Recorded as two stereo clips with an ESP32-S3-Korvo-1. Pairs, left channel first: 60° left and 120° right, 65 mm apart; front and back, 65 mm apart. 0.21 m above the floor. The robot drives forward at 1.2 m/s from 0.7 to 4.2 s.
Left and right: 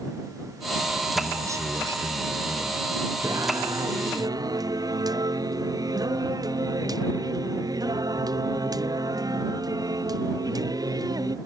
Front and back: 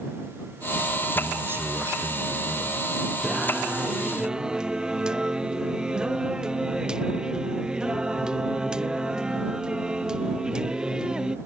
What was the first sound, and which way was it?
A man speaking, 125° right.